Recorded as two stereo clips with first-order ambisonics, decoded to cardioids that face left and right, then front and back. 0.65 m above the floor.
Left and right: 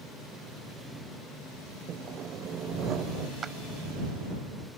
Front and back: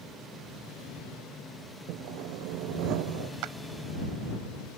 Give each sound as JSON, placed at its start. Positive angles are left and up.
{"t": 1.9, "sound": "sawing", "azimuth_deg": -150}
{"t": 3.4, "sound": "a clap", "azimuth_deg": -160}